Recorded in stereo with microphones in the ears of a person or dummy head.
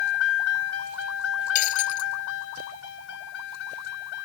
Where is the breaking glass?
45° left (ahead or behind).